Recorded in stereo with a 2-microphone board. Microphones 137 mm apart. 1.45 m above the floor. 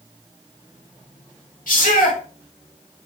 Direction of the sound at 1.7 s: 85° left.